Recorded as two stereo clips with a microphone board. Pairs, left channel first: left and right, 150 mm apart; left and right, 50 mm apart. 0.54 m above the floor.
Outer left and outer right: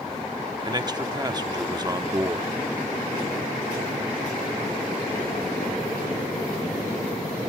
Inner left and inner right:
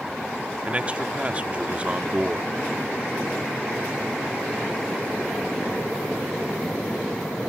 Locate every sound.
0.7 s a man speaking: 30° right (ahead or behind), 0.7 m